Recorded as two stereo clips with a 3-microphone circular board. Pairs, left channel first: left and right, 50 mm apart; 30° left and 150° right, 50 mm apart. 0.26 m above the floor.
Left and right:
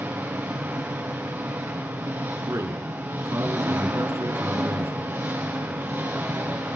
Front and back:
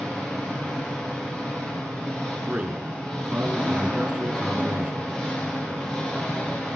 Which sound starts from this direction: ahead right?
An engine running, at 0.0 s.